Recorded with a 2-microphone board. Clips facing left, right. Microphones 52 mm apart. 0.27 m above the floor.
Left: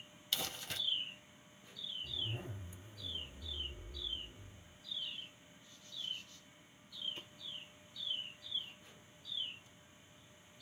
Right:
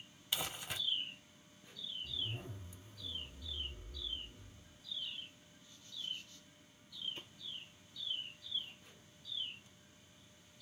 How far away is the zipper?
About 1.8 m.